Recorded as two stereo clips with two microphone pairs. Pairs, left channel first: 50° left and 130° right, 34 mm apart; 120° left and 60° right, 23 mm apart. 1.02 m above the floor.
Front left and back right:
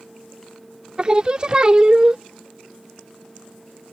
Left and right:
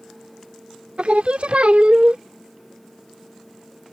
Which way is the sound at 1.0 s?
70° right.